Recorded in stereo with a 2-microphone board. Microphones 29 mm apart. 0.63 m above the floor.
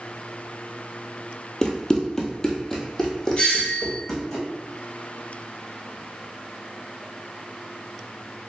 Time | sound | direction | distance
1.6 | running footsteps | 20° left (ahead or behind) | 0.6 m
3.4 | a doorbell | 35° left (ahead or behind) | 1.1 m